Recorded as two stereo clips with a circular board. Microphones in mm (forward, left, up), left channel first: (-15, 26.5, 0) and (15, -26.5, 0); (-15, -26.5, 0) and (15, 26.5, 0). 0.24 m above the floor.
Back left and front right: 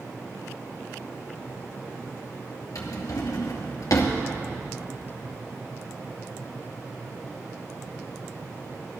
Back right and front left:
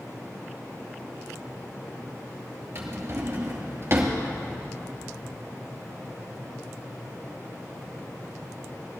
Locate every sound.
2.8 s a drawer: 110° left, 2.5 m